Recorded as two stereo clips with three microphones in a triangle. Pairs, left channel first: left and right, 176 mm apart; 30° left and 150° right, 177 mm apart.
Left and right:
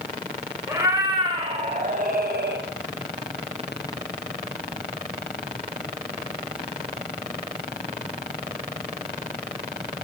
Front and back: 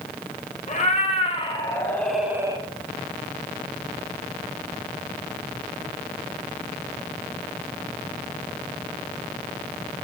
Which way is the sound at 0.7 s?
15° right.